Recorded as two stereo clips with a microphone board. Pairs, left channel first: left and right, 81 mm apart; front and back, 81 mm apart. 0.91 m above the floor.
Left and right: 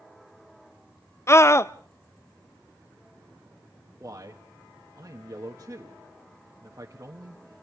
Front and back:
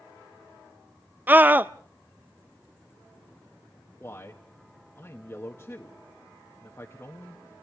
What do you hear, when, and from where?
1.3 s a scream: 125° left, 0.6 m
4.0 s a man speaking: 50° right, 1.6 m